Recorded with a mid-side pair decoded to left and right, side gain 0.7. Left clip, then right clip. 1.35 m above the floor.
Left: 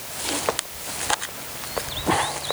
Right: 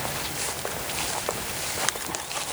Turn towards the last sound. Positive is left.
No sound to turn to.